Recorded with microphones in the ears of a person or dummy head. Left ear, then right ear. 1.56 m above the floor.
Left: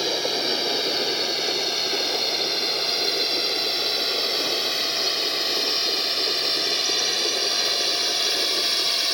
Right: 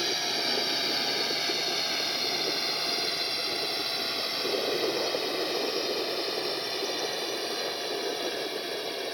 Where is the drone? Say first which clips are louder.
Left 5 dB; centre (ahead or behind); by 9.2 s 35° left (ahead or behind).